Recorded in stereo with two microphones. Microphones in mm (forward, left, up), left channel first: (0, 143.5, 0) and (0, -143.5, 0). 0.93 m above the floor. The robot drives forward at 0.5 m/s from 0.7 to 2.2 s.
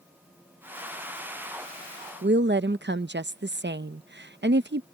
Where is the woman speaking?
40° right (ahead or behind).